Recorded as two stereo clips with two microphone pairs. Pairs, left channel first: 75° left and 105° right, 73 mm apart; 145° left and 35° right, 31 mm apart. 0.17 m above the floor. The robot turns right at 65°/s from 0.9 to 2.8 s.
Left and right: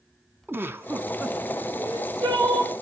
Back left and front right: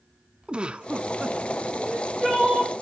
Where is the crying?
130° right, 7 m; by 2.7 s 70° right, 7 m.